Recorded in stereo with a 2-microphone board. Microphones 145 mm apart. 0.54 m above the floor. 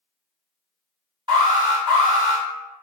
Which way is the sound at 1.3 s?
30° right (ahead or behind).